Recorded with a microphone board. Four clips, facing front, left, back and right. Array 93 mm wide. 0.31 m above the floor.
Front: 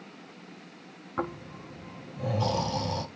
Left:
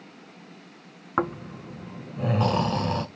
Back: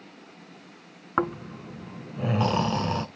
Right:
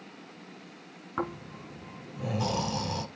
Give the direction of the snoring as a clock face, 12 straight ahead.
7 o'clock.